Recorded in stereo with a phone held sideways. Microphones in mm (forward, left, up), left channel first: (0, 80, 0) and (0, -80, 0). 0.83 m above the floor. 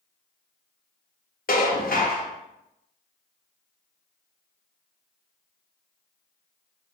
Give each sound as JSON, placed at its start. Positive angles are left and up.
{"t": 1.5, "sound": "dishes clattering", "side_deg": 65, "distance_m": 0.6}